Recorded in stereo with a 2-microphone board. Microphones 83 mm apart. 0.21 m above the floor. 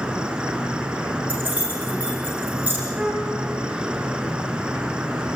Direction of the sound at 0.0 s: 10° right (ahead or behind).